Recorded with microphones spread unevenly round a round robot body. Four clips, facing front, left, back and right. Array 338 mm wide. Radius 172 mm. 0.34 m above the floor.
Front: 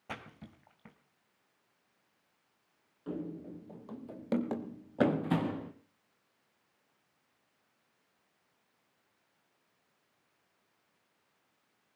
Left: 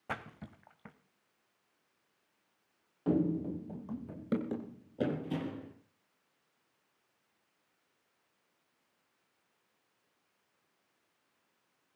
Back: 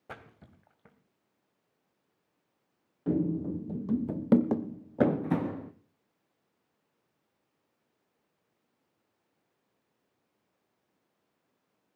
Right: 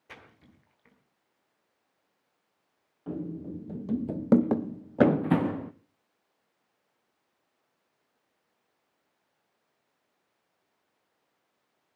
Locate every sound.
0.1 s a splash: 75° left, 2 m
3.1 s running footsteps: 150° left, 0.8 m; by 5.7 s 70° right, 1.7 m